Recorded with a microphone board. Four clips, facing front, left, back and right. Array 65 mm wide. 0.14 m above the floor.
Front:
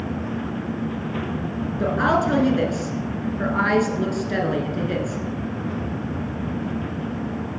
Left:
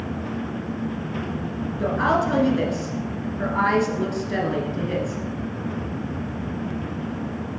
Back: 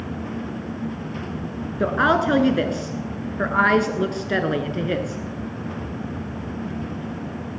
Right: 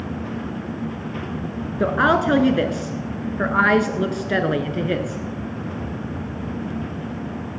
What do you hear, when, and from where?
1.8 s a woman speaking: 125° right, 1.5 m